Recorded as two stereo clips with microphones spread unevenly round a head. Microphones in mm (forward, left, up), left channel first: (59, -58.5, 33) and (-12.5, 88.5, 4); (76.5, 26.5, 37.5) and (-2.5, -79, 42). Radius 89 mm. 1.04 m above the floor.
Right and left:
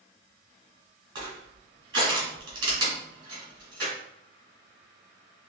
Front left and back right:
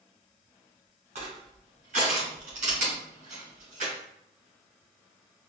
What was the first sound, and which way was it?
Crushing, 175° right.